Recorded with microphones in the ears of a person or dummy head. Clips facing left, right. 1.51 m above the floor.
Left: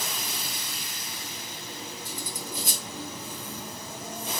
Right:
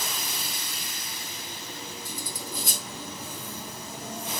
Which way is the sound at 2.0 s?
50° right (ahead or behind).